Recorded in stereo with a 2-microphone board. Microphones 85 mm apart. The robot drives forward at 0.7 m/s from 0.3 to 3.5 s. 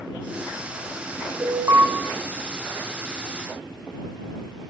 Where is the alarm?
40° right (ahead or behind), 1.6 m; by 1.9 s 45° right (ahead or behind), 1.4 m.